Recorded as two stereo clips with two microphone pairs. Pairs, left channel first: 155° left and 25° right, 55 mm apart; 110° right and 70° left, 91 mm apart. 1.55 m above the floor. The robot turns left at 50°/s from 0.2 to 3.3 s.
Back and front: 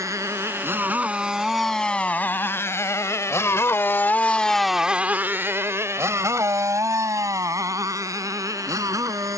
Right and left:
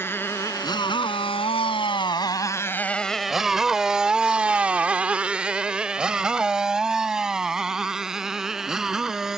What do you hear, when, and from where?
0.0 s a motorcycle: 45° right; by 9.4 s 15° right